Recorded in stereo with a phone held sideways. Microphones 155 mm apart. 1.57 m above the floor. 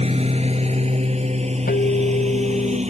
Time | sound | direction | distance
0.0 | a lawn mower | 40° right (ahead or behind) | ?
1.7 | a guitar | 80° left | ?